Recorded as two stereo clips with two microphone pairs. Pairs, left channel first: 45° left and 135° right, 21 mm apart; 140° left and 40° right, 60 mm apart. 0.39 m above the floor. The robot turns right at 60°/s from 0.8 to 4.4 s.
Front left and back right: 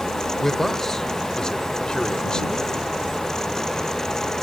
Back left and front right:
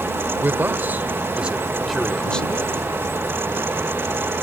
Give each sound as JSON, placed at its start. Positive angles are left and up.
{"t": 0.4, "sound": "a man speaking", "azimuth_deg": -20}